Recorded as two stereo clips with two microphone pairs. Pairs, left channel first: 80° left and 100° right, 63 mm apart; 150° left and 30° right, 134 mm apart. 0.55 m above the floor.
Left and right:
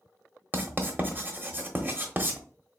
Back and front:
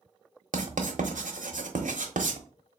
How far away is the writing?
About 1.0 m.